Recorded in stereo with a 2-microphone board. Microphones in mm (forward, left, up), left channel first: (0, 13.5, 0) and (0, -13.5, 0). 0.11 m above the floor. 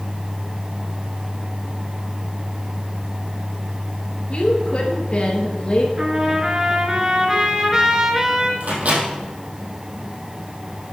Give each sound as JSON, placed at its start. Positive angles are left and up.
{"t": 4.3, "sound": "a woman speaking", "side_deg": 45, "distance_m": 2.0}
{"t": 6.0, "sound": "a trumpet", "side_deg": -25, "distance_m": 1.3}
{"t": 8.6, "sound": "a microwave", "side_deg": -60, "distance_m": 3.0}